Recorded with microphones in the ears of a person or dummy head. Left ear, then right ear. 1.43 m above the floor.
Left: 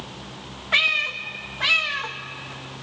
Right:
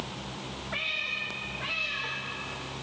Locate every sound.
0.7 s a cat meowing: 40° left (ahead or behind), 0.8 m